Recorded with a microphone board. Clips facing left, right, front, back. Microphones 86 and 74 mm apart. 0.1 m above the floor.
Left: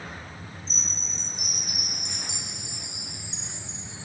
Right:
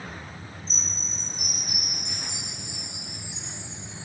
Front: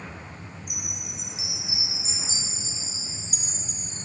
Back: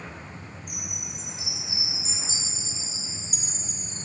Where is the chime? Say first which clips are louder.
Right 1 dB, even; 135° right, 4 m.